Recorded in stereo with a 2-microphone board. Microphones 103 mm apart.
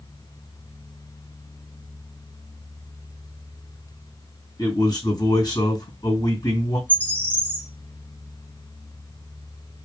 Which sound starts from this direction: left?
A man speaking, at 4.6 s.